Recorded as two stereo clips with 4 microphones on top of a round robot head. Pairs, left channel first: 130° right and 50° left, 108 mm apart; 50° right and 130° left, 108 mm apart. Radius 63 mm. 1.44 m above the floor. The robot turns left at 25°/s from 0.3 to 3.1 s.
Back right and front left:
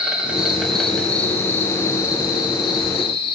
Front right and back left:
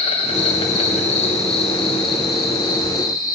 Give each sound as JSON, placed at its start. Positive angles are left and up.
{"t": 0.0, "sound": "an insect", "azimuth_deg": -30, "distance_m": 1.7}